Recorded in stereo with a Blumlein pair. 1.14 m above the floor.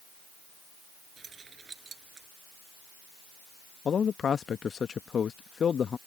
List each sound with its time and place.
1.2 s keys jangling: 20° right
3.9 s a man speaking: 20° left